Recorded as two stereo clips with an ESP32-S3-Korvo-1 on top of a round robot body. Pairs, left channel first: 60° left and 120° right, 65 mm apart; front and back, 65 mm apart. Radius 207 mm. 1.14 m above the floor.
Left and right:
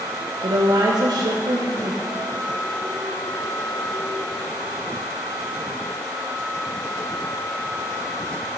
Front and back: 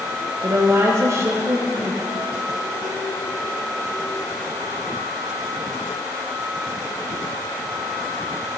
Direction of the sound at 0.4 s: 130° right.